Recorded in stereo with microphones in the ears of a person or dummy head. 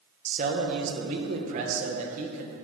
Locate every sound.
0.2 s a man speaking: 50° right (ahead or behind), 1.1 m